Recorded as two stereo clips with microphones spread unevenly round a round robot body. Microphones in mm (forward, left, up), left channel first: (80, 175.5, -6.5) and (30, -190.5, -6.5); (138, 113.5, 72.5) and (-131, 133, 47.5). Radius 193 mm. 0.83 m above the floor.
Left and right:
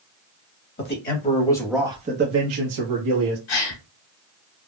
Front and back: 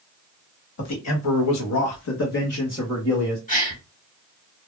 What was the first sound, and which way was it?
A man speaking, 20° left.